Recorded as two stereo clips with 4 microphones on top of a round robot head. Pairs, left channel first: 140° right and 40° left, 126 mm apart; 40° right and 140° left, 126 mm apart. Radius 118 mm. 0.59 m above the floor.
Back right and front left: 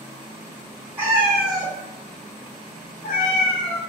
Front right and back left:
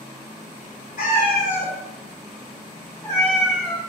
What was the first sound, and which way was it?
A cat meowing, 30° right.